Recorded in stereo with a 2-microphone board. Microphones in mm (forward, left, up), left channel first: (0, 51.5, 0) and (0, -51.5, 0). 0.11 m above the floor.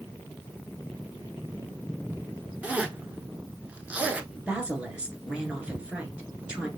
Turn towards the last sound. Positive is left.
turn(degrees=-10)  # may be behind; listen again after turning